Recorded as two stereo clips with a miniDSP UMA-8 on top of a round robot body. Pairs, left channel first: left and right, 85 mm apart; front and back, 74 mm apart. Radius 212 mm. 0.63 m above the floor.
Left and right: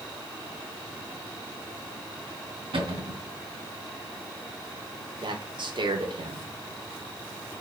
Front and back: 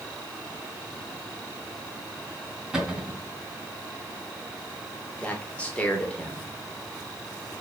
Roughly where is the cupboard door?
Right.